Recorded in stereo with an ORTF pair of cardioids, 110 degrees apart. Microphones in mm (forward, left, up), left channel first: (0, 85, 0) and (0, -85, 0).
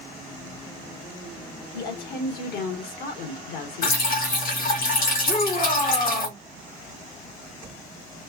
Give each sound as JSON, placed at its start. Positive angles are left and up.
{"t": 1.7, "sound": "a woman speaking", "azimuth_deg": 65, "distance_m": 2.0}
{"t": 3.8, "sound": "dripping", "azimuth_deg": 60, "distance_m": 1.9}
{"t": 5.3, "sound": "a shout", "azimuth_deg": 50, "distance_m": 1.1}